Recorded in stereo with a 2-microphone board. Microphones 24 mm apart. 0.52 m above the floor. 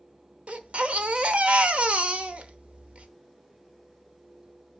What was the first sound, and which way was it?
A baby crying, 60° right (ahead or behind).